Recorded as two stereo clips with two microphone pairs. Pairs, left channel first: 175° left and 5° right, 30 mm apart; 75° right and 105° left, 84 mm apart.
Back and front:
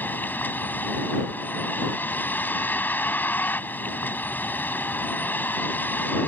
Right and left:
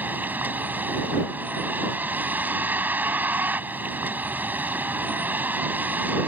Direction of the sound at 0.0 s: 175° left.